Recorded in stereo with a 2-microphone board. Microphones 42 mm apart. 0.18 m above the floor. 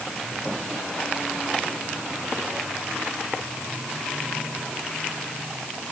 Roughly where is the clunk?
I don't hear a clunk.